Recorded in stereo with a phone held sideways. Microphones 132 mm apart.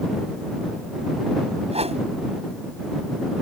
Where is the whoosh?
50° right (ahead or behind).